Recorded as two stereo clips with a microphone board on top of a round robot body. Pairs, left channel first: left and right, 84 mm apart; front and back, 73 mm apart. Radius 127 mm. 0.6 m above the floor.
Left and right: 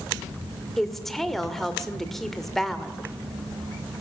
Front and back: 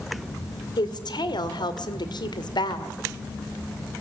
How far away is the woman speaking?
About 2 m.